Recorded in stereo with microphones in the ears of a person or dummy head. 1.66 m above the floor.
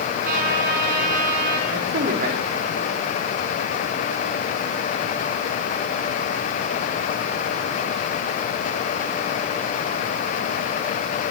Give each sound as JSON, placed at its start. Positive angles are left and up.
{"t": 0.2, "sound": "a trumpet", "side_deg": -50, "distance_m": 4.5}
{"t": 1.7, "sound": "a man speaking", "side_deg": -50, "distance_m": 3.5}